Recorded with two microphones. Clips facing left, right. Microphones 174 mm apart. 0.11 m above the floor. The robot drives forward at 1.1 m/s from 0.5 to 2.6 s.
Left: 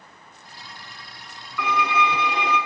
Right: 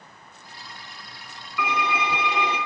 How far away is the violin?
About 6.5 m.